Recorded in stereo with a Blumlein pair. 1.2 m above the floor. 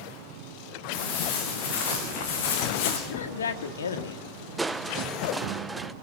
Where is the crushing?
10° right, 0.5 m.